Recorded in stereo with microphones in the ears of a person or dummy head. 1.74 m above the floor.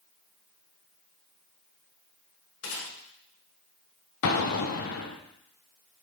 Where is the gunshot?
75° left (ahead or behind), 3.5 m.